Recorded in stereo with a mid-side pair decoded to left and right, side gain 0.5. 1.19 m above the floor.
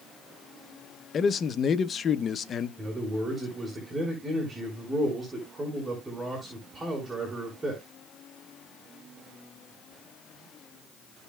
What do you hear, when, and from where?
1.1 s a man speaking: 40° left, 0.9 m
2.8 s a man speaking: 20° right, 5 m